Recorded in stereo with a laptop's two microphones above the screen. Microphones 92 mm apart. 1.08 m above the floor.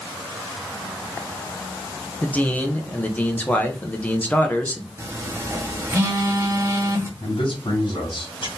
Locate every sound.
2.2 s a man speaking: 15° left (ahead or behind), 0.8 m
5.0 s a phone buzzing: 25° right (ahead or behind), 0.9 m
7.2 s a man speaking: 55° left (ahead or behind), 1.9 m